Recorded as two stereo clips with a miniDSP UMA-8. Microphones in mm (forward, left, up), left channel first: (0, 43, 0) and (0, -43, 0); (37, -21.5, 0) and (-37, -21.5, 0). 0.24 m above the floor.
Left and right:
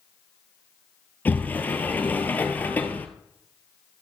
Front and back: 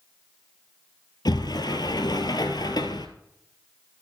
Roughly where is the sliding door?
Ahead.